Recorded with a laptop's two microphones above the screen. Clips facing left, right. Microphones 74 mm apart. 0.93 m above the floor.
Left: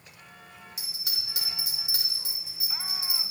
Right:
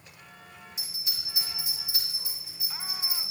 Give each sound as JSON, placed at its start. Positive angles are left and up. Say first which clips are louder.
{"t": 0.8, "sound": "a bell", "louder": "left 2 dB", "side_deg": 75, "distance_m": 3.0}